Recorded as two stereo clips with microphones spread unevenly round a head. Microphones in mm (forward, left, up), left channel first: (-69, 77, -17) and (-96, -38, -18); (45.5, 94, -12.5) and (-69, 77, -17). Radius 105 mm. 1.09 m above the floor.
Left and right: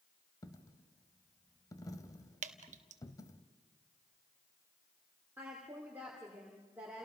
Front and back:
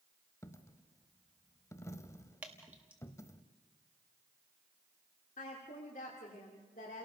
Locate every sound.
0.4 s a dropped coin: 45° left, 1.0 m
2.4 s dripping: 90° right, 0.9 m
5.4 s a woman speaking: 20° right, 2.5 m